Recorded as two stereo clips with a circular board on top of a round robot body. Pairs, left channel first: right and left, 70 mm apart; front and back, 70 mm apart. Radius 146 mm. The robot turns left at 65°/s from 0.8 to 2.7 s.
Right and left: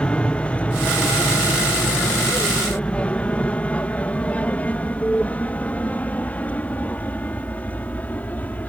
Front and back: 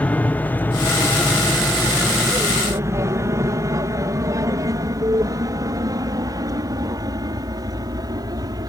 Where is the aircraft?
35° right; by 8.7 s 155° right.